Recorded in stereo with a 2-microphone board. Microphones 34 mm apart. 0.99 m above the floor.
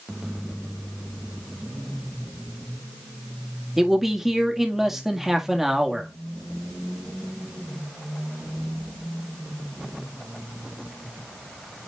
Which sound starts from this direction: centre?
A man speaking, at 3.8 s.